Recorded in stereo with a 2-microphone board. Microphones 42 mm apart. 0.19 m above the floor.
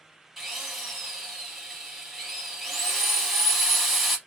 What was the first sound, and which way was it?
A drill, 5° right (ahead or behind).